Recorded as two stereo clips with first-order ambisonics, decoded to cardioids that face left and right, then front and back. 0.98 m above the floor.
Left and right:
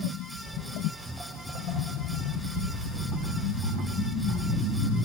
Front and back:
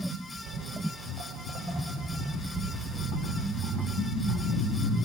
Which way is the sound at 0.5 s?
170° right.